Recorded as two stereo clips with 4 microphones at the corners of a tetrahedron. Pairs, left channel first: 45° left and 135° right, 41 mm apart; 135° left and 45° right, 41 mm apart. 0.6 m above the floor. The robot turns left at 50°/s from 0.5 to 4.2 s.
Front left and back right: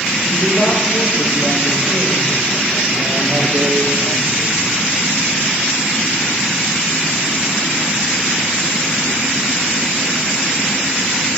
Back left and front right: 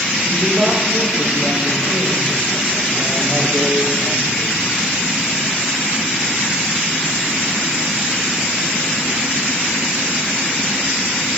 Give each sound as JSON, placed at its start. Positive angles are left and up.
{"t": 0.3, "sound": "a woman speaking", "azimuth_deg": -5, "distance_m": 2.5}